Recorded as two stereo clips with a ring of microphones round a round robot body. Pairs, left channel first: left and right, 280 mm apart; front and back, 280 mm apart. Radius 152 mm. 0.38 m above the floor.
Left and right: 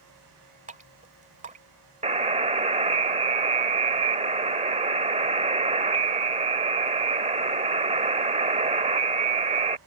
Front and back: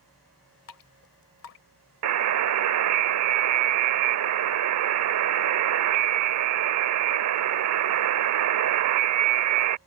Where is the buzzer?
155° right.